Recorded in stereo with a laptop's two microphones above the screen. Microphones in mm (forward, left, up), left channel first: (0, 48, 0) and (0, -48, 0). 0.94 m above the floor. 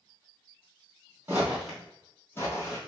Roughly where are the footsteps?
Right.